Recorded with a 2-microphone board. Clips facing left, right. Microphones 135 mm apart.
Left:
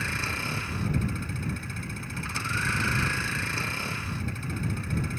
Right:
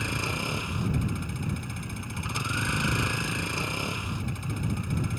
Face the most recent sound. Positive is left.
turn(degrees=-15)  # may be behind; listen again after turning